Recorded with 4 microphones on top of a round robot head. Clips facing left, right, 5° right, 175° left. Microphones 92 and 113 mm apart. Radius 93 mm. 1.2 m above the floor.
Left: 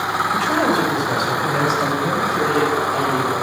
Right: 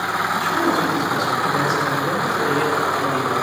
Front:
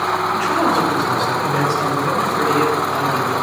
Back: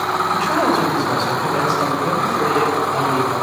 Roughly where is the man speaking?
Left.